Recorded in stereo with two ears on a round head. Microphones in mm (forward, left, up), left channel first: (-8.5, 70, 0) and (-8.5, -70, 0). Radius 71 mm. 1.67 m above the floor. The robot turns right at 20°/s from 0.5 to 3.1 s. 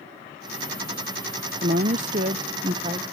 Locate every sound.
1.6 s a woman speaking: 50° right (ahead or behind); by 3.0 s 35° right (ahead or behind)